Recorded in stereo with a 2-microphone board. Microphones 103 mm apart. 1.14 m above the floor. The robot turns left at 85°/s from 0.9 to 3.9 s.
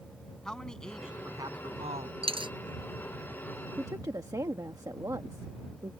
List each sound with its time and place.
0.5 s a man speaking: 5° left; by 2.1 s 100° right
2.2 s a dropped coin: 65° right (ahead or behind); by 2.5 s 45° right (ahead or behind)
3.8 s a woman speaking: 25° right (ahead or behind); by 5.9 s 35° right (ahead or behind)